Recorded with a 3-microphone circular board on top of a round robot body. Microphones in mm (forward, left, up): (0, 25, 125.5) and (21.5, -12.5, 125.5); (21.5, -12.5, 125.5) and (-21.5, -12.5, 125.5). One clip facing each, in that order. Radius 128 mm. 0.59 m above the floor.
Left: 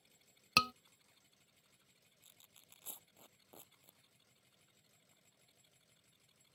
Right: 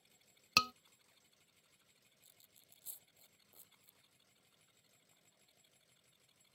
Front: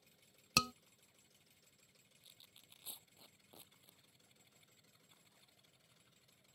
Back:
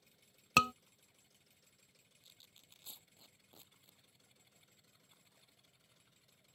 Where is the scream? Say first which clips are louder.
Left 1 dB, back 7 dB; 160° right.